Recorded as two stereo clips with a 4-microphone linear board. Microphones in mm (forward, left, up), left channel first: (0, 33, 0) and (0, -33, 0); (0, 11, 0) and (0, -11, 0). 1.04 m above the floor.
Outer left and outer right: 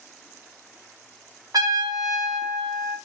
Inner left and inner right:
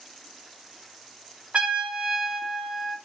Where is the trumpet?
75° right (ahead or behind), 1.2 m.